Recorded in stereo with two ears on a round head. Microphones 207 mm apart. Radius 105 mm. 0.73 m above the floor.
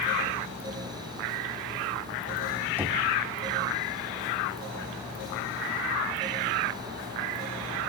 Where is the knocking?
10° right (ahead or behind), 1.0 m.